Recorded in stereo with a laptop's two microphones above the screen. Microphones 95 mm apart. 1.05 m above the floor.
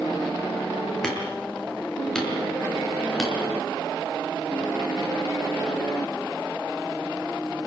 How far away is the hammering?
About 7 m.